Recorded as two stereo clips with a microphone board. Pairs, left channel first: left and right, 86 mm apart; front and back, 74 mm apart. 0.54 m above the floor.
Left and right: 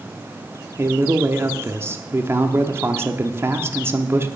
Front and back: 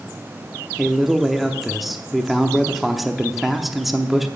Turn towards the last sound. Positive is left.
turn(degrees=-95)